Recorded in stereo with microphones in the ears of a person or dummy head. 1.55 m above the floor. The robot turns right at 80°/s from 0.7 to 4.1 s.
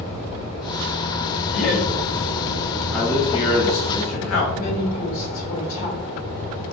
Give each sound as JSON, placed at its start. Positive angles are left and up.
{"t": 1.5, "sound": "laughter", "side_deg": 35, "distance_m": 1.1}
{"t": 2.9, "sound": "a man speaking", "azimuth_deg": 0, "distance_m": 1.6}
{"t": 4.6, "sound": "a woman speaking", "side_deg": 45, "distance_m": 1.2}